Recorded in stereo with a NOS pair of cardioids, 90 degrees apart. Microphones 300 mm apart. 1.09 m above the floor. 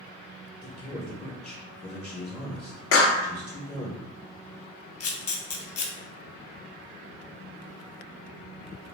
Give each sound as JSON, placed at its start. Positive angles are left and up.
{"t": 0.6, "sound": "a man speaking", "azimuth_deg": 20, "distance_m": 0.7}
{"t": 2.9, "sound": "a clap", "azimuth_deg": 50, "distance_m": 0.6}
{"t": 5.0, "sound": "a camera shutter", "azimuth_deg": 50, "distance_m": 0.6}